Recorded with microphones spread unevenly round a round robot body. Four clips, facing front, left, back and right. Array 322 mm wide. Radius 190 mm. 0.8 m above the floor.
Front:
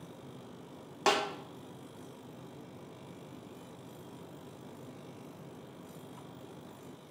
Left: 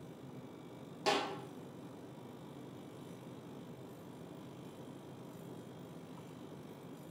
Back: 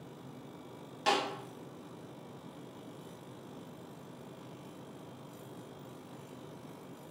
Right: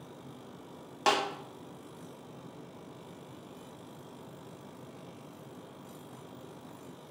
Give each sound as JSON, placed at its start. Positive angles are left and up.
{"t": 1.1, "sound": "a snare drum", "azimuth_deg": -65, "distance_m": 0.5}